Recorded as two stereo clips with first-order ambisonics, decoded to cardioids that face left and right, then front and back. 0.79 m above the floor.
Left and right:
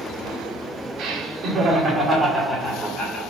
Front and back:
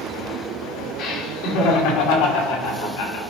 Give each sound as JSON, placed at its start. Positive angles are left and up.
{"t": 1.0, "sound": "laughter", "azimuth_deg": -45, "distance_m": 2.0}